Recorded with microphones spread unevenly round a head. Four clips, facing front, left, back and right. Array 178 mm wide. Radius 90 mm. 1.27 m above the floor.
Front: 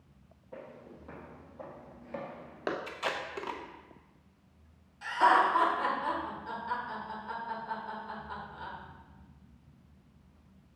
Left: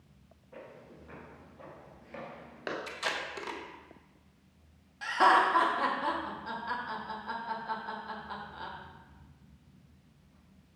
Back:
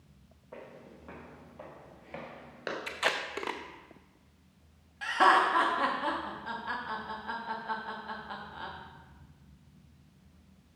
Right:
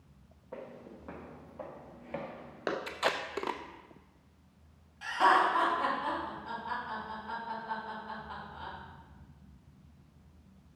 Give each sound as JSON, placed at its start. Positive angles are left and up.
{"t": 0.5, "sound": "footsteps", "azimuth_deg": -115, "distance_m": 3.0}
{"t": 2.9, "sound": "tape being pulled", "azimuth_deg": -120, "distance_m": 0.6}
{"t": 5.0, "sound": "laughter", "azimuth_deg": 145, "distance_m": 1.9}